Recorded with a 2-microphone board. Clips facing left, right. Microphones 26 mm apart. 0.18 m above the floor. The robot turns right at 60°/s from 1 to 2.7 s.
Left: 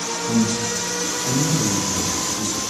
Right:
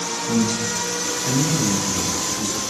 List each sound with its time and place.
0.3 s a man speaking: 25° right (ahead or behind), 1.2 m; by 2.6 s 5° right (ahead or behind), 1.2 m